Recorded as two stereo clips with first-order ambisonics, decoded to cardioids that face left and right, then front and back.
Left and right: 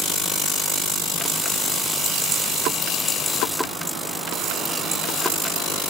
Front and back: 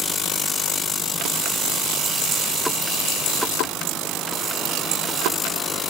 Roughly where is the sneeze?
No sneeze in this recording.